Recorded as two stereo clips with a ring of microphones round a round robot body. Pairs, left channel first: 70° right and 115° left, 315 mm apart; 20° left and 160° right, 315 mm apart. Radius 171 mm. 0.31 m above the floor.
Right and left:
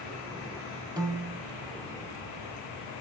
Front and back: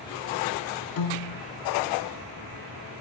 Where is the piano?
35° left, 0.8 m.